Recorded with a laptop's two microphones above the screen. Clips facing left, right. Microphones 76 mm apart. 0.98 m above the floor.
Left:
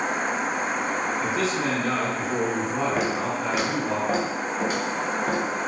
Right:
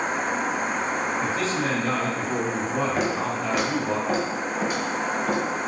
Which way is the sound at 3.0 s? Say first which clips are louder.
Even; 5° left (ahead or behind).